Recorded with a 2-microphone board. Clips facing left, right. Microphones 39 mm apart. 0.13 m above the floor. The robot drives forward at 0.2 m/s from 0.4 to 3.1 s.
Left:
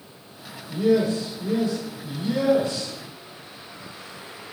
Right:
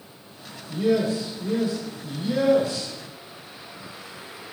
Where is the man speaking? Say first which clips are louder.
Left 2 dB; 30° right (ahead or behind), 1.8 m; by 2.9 s 25° right (ahead or behind), 1.9 m.